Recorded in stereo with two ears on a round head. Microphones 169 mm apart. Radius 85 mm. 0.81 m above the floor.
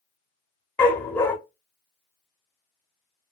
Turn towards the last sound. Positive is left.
turn(degrees=10)  # may be behind; listen again after turning